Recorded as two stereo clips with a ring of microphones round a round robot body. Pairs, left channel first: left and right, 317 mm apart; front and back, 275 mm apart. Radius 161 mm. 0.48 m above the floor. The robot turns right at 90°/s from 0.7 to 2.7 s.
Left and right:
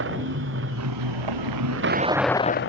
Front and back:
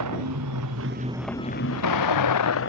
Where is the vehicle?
140° right; by 2.7 s 40° left.